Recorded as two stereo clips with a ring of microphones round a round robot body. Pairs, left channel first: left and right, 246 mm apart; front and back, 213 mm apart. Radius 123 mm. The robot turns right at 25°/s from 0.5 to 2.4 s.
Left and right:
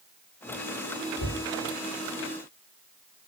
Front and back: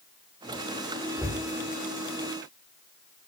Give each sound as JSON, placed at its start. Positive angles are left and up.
{"t": 1.2, "sound": "a cupboard door", "azimuth_deg": 100, "distance_m": 9.5}